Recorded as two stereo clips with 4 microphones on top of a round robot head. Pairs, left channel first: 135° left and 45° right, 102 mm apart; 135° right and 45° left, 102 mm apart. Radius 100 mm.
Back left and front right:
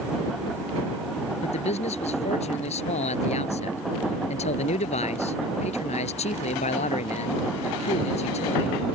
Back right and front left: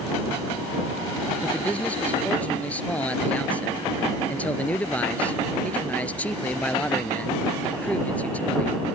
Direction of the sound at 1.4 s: 145° left.